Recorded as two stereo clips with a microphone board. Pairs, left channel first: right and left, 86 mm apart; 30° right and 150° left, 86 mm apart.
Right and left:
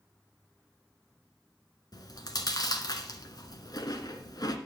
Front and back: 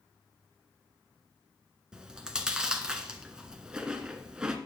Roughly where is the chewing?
Behind right.